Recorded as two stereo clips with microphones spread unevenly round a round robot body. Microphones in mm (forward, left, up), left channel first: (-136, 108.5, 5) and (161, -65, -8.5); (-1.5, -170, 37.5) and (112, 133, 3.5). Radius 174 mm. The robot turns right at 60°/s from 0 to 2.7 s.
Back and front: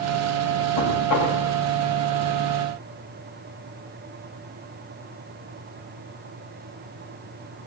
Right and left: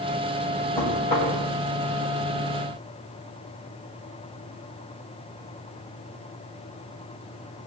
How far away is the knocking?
About 3 m.